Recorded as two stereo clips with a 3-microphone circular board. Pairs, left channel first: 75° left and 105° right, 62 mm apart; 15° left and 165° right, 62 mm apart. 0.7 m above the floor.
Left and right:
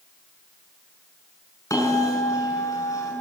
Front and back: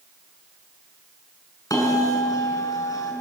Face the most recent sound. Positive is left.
turn(degrees=45)